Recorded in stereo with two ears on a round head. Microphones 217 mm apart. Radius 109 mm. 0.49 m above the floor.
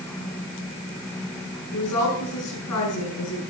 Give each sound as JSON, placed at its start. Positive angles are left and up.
{"t": 1.7, "sound": "a woman speaking", "side_deg": 80, "distance_m": 6.0}